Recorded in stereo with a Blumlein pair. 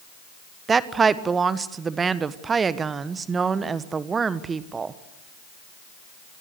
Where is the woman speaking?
15° right, 1.3 m.